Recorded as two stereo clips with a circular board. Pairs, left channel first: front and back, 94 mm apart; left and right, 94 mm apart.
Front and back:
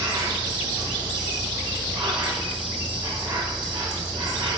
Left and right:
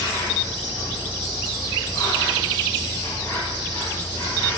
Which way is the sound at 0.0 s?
140° left.